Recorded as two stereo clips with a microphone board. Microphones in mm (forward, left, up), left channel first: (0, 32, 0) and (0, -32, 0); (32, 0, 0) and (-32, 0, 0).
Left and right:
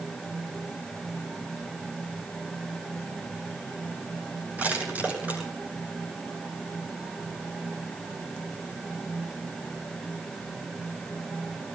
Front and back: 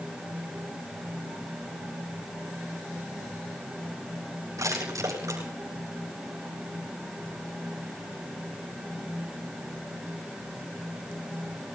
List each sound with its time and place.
4.6 s crushing: 155° right, 9.5 m